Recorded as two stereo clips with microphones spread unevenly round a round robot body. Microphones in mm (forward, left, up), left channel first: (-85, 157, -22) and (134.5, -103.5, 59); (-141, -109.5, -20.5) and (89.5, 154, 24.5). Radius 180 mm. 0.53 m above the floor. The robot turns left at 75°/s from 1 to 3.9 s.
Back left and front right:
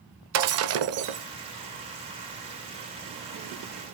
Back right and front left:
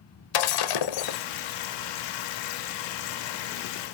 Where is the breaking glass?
105° right, 0.8 m; by 1.2 s 120° right, 0.8 m.